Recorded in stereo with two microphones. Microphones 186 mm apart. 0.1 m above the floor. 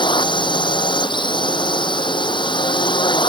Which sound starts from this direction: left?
A drone, at 0.0 s.